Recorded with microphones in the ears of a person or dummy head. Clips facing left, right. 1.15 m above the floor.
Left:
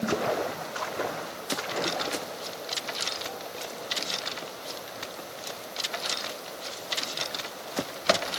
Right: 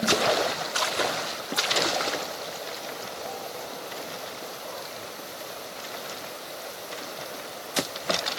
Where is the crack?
No crack in this recording.